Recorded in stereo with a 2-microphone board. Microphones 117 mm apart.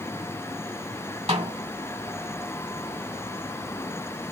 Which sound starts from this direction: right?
A snare drum, at 1.3 s.